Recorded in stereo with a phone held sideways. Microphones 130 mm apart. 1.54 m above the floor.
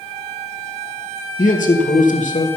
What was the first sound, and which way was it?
A man speaking, 75° left (ahead or behind).